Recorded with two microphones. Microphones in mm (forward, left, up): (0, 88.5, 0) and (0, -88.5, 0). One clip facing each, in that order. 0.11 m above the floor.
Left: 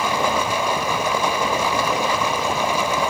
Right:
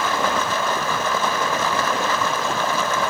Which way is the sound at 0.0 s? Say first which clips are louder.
Left 1 dB; 10° left (ahead or behind).